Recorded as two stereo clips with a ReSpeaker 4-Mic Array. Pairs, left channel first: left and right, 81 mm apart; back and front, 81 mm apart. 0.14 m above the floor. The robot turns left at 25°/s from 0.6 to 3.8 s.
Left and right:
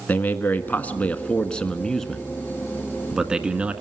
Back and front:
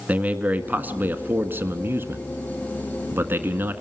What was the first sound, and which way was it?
A man speaking, 45° left.